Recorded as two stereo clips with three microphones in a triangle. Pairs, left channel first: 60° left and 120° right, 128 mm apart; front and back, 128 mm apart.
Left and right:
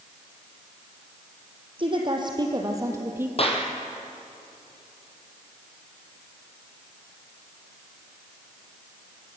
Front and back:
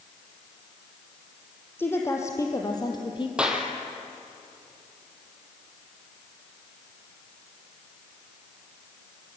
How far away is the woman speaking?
About 4.5 m.